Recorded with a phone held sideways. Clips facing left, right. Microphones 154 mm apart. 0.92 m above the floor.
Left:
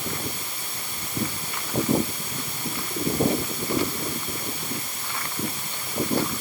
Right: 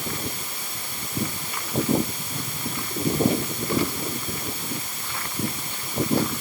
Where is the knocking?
No knocking in this recording.